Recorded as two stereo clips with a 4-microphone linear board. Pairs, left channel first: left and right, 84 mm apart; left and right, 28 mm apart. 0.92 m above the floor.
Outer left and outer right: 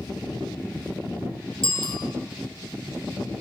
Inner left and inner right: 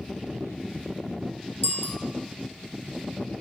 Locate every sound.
1.6 s a bicycle bell: 85° left, 6 m